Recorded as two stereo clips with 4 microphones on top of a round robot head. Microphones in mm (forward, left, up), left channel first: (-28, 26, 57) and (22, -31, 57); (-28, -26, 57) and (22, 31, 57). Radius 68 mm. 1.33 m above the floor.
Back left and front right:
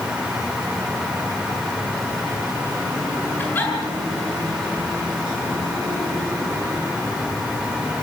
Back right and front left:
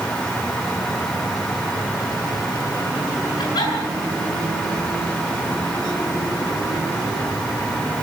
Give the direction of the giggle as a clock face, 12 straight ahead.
5 o'clock.